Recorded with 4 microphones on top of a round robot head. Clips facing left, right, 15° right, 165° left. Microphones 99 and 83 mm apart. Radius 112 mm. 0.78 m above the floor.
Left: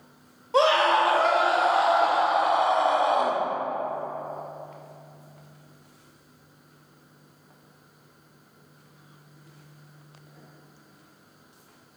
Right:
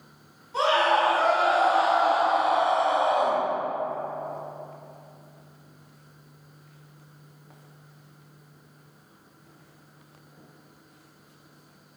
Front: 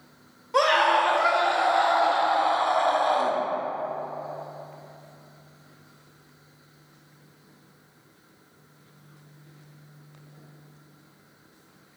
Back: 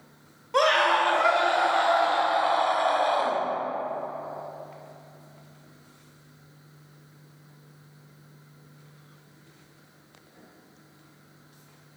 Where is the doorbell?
I don't hear a doorbell.